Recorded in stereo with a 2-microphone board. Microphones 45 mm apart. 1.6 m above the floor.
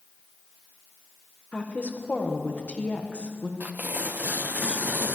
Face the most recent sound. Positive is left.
turn(degrees=-40)  # may be behind; listen again after turning